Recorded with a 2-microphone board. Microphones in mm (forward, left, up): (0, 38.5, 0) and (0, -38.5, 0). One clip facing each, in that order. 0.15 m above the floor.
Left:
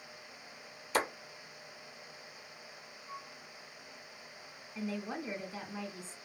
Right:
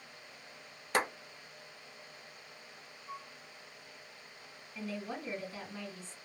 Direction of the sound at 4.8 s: 15° left (ahead or behind).